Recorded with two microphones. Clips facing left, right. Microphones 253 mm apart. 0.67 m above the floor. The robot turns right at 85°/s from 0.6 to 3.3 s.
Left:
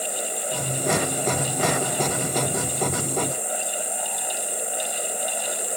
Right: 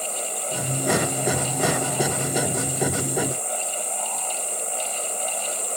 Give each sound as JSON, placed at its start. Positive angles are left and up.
{"t": 0.0, "sound": "an insect", "azimuth_deg": -75, "distance_m": 1.1}